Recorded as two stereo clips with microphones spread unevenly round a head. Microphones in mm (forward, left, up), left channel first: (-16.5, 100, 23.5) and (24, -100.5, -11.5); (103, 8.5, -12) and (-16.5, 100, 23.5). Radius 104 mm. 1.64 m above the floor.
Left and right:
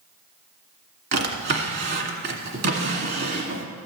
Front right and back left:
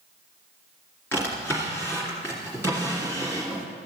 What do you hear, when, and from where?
1.1 s a drawer: 125° right, 2.0 m